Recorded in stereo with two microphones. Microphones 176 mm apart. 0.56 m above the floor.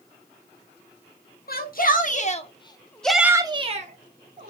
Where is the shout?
55° left (ahead or behind), 1.2 m; by 4.5 s 55° right (ahead or behind), 1.0 m.